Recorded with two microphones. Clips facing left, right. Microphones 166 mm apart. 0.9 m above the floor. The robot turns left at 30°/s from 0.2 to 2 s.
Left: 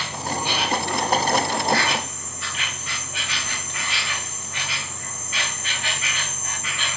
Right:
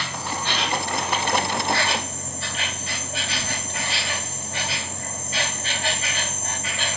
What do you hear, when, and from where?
0.0 s an insect: 20° left, 3 m; by 7.0 s 35° right, 3 m